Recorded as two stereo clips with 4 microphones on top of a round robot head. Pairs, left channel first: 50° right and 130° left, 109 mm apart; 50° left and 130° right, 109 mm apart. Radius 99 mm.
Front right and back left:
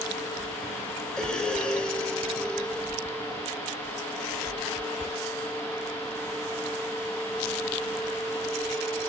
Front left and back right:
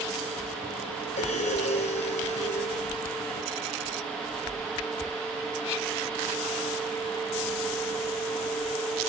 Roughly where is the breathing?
Ahead left.